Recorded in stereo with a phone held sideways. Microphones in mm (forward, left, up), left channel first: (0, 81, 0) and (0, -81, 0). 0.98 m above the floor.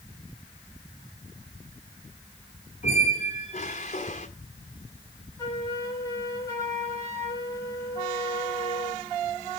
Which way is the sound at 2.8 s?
50° left (ahead or behind).